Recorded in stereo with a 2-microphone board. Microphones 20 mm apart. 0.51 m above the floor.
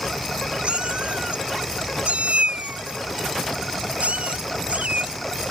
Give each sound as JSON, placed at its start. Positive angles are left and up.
{"t": 0.6, "sound": "a cat meowing", "side_deg": -55}